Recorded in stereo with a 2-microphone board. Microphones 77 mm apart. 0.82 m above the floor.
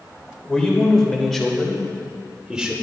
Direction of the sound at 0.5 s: 10° left (ahead or behind).